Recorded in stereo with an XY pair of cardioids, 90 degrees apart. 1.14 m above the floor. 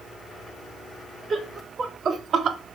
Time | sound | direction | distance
1.3 | laughter | 50° right | 2.5 m